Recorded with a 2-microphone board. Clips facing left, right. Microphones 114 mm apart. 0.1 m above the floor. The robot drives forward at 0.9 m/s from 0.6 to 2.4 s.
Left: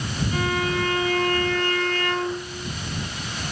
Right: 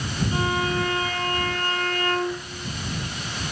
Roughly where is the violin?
Right.